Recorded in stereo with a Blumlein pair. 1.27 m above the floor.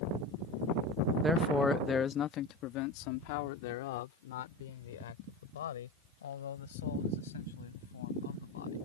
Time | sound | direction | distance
1.2 | a man speaking | 15° right | ?